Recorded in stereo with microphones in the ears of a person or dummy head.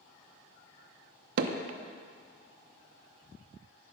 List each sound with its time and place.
1.4 s hammering: 60° right (ahead or behind), 0.8 m